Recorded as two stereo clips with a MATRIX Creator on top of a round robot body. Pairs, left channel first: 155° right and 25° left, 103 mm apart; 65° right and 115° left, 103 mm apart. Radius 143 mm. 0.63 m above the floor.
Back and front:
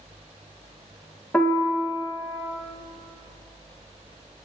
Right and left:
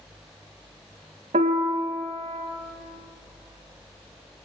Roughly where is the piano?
Behind left.